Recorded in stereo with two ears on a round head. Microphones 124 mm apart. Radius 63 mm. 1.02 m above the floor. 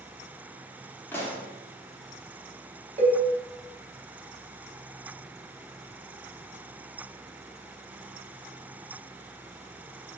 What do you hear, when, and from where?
1.1 s a pop: 15° left (ahead or behind), 0.6 m
3.0 s a cowbell: 55° right (ahead or behind), 0.8 m